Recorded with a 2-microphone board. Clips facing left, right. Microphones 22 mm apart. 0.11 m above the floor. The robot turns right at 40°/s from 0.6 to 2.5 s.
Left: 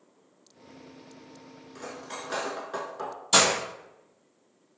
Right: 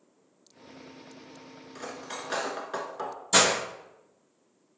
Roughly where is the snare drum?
No snare drum in this recording.